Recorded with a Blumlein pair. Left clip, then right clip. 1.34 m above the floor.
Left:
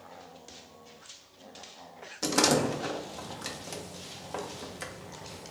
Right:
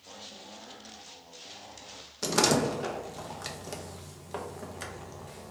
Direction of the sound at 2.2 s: Straight ahead.